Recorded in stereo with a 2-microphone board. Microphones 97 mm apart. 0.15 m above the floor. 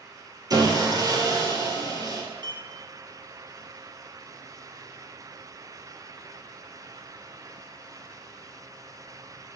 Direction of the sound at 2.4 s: 50° right (ahead or behind).